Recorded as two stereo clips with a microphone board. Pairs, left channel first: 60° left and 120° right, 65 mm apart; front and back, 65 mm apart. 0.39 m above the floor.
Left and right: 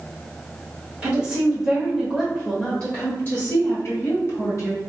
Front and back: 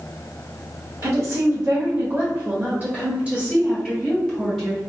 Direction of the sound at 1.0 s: 175° left.